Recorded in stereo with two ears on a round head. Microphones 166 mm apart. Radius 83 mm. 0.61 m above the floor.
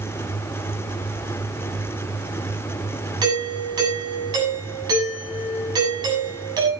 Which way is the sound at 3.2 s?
20° right (ahead or behind).